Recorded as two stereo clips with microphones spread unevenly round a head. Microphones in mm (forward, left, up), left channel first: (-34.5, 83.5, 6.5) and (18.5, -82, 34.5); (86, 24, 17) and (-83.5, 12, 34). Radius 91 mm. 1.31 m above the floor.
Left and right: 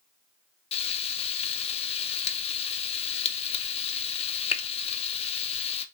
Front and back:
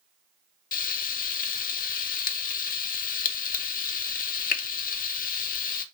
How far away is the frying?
About 0.5 m.